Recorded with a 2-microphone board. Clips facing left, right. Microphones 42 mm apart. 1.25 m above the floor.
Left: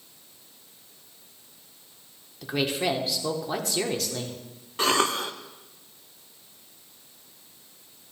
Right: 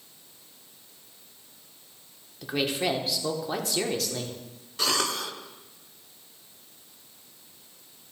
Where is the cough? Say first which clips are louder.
Left 4 dB; 35° left (ahead or behind), 0.5 m.